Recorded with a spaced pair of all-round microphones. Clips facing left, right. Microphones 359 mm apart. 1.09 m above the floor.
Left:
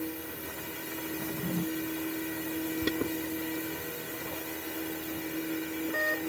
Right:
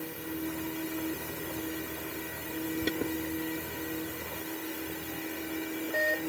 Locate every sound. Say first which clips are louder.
1.2 s a drawer: left 4 dB; 80° left
2.8 s an alarm: even; 15° left (ahead or behind)